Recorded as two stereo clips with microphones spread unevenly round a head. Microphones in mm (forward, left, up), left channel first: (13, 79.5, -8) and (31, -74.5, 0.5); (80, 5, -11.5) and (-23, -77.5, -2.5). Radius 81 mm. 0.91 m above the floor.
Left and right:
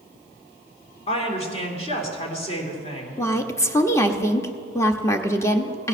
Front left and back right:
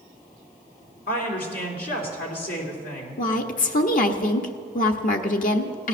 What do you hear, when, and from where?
1.1 s a woman speaking: 50° left, 3 m
3.2 s a woman speaking: 25° left, 1.2 m